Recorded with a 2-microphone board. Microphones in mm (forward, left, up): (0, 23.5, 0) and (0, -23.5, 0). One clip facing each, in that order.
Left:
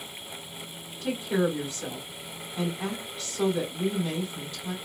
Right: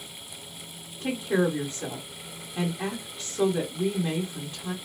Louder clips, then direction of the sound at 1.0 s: Right 1 dB; 30° right (ahead or behind).